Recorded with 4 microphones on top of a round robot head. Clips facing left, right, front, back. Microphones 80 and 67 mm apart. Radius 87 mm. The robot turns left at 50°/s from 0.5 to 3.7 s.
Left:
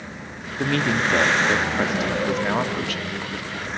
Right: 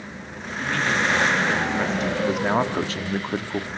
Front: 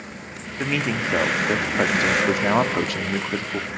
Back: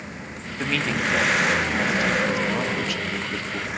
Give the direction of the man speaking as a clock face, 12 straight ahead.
9 o'clock.